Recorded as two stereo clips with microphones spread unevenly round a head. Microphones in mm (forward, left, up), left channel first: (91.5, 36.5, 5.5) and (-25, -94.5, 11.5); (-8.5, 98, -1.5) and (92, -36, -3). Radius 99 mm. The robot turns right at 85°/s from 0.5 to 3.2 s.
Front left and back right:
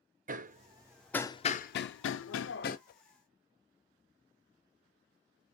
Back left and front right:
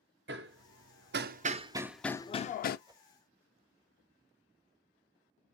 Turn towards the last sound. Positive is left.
turn(degrees=40)